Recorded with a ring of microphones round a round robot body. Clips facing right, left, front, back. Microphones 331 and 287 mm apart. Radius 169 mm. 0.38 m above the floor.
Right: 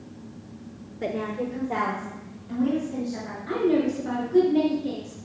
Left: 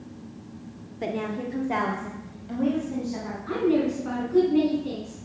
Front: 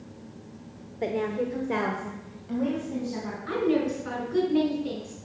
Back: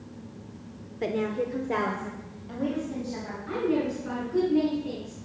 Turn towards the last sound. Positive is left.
turn(degrees=5)